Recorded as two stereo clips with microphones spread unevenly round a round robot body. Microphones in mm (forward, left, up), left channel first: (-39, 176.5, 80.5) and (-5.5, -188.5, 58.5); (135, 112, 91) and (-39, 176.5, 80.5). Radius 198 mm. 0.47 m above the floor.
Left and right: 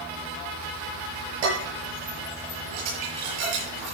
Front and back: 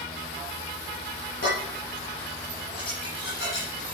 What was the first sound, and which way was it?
Dishes clattering, 75° right.